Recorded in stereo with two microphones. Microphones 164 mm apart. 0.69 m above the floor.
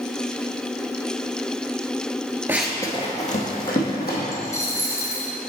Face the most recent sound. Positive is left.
turn(degrees=20)  # may be behind; listen again after turning